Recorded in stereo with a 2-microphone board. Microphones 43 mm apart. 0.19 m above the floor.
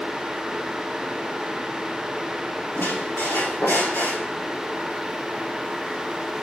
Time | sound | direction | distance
2.8 | a squeak | 70° left (ahead or behind) | 4 m